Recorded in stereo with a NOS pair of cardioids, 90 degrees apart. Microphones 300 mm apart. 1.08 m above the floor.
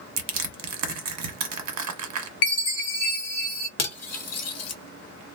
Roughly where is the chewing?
I don't hear chewing.